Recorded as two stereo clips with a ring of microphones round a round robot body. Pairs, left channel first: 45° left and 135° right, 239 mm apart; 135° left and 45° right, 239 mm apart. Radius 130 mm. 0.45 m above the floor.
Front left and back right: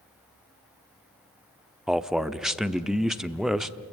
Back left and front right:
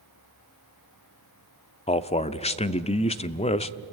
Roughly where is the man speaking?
Behind left.